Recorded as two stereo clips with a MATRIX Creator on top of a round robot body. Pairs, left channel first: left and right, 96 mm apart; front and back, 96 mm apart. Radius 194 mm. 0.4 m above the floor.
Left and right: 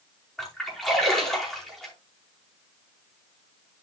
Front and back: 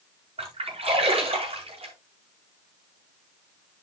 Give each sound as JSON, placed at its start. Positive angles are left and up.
{"t": 0.4, "sound": "a splash", "azimuth_deg": 175, "distance_m": 5.0}